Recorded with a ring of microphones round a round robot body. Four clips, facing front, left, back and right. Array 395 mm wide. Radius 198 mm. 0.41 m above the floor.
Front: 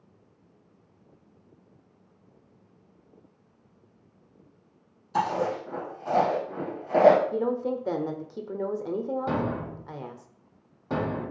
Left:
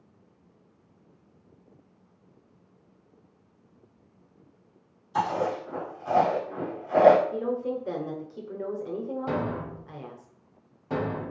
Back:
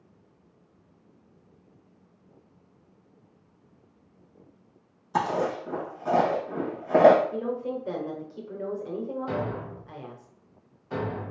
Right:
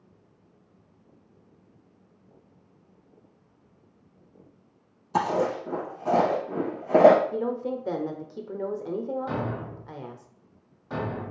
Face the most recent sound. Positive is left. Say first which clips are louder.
# left 1 dB, front 2 dB
turn(degrees=20)